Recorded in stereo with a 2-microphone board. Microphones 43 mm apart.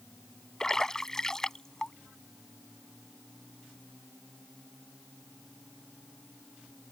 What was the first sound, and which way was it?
A splash, 15° left (ahead or behind).